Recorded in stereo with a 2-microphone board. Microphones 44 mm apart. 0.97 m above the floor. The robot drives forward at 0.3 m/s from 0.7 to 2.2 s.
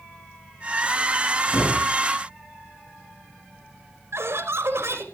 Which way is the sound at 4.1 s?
75° right (ahead or behind).